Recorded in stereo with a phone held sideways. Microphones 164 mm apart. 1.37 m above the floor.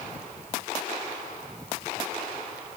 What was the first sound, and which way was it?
Only background noise.